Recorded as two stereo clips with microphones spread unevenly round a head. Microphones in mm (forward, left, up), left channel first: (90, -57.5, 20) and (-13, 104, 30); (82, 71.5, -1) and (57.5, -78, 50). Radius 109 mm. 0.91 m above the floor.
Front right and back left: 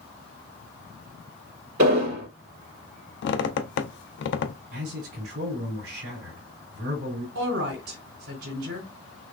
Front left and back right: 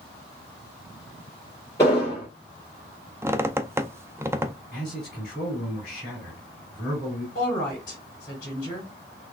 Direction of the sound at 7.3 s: 145° left.